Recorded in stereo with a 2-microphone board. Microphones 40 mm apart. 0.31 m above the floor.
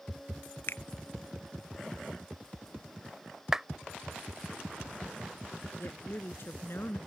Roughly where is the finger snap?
Left.